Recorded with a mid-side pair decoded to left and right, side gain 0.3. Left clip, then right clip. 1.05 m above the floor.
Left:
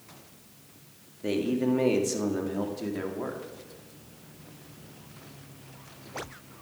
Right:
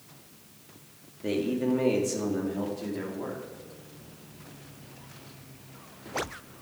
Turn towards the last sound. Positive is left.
turn(degrees=55)